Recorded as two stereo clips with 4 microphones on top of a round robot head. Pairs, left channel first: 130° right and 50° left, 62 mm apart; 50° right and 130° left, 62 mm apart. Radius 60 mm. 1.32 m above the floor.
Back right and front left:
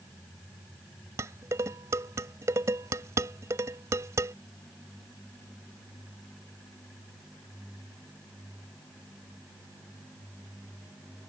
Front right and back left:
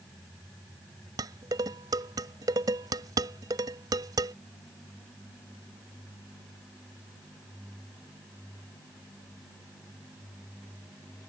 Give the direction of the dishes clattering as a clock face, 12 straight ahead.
9 o'clock.